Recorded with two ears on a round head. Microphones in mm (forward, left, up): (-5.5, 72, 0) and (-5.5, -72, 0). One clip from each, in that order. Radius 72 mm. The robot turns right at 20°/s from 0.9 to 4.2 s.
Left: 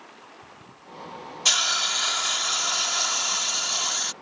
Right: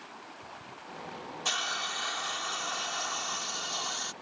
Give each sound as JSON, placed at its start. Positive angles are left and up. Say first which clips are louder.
{"t": 1.4, "sound": "a hiss", "louder": "left 10 dB", "azimuth_deg": 75}